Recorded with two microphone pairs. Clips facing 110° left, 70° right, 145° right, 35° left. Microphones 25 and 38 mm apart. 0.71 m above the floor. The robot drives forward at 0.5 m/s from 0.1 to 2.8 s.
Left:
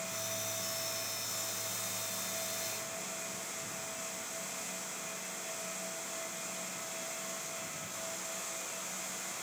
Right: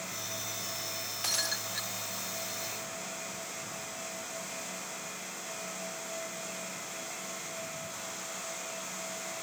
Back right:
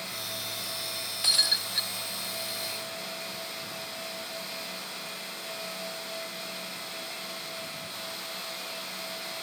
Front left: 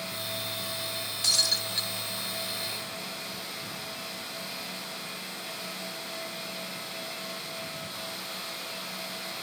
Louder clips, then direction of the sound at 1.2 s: Right 7 dB, back right 1 dB; 75° right.